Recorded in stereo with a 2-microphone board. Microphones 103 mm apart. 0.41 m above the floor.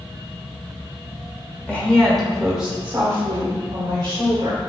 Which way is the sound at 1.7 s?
15° left (ahead or behind).